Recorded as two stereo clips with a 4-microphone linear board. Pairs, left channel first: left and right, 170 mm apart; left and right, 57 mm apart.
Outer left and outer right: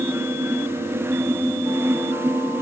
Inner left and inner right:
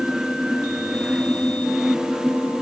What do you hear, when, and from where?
Only background noise.